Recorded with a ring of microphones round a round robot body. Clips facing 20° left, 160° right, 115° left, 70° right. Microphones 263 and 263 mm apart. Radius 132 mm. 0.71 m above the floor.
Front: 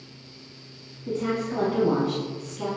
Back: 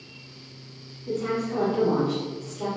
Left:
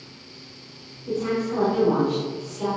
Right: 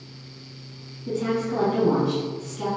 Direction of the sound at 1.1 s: 30° right.